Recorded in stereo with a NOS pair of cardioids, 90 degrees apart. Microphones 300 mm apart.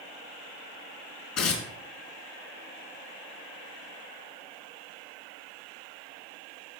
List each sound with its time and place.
1.4 s tearing paper: 60° left, 4 m